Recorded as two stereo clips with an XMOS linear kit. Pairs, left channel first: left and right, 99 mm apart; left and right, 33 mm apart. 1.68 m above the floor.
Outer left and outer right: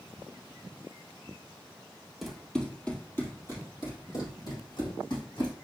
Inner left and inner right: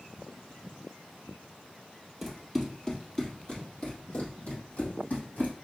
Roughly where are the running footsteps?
Centre.